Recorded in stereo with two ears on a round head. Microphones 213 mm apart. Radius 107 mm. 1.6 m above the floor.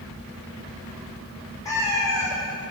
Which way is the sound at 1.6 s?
15° left (ahead or behind).